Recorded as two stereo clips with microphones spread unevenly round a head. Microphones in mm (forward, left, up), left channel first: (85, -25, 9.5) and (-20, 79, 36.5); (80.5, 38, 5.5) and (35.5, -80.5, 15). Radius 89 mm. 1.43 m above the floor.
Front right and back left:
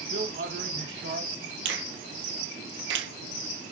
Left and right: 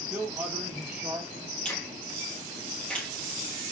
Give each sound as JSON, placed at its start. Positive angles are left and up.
{"t": 0.1, "sound": "a man speaking", "azimuth_deg": 165, "distance_m": 2.5}
{"t": 1.6, "sound": "a finger snap", "azimuth_deg": 155, "distance_m": 1.4}